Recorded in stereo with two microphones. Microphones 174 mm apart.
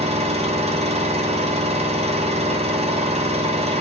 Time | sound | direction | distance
0.0 | an engine running | 35° right (ahead or behind) | 0.8 m